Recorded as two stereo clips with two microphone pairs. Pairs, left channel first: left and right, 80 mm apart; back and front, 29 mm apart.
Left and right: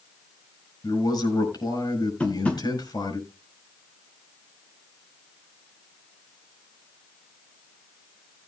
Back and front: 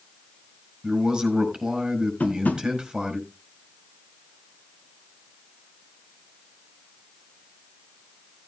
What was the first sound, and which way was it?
A man speaking, 70° left.